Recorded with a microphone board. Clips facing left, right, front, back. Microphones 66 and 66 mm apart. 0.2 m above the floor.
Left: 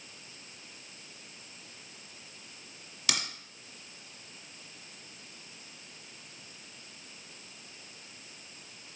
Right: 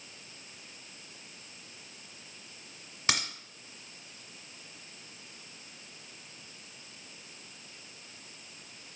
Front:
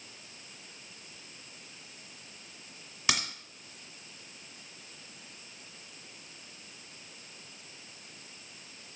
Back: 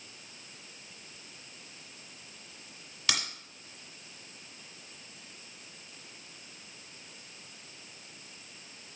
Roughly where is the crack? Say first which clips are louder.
Right 3 dB, front 2 dB; ahead right.